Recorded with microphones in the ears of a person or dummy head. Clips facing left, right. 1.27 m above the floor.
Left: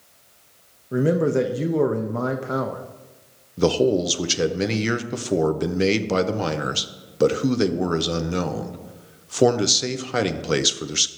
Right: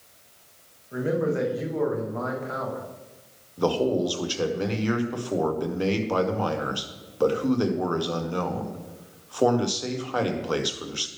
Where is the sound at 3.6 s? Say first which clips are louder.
Left 4 dB; 25° left (ahead or behind), 0.8 m.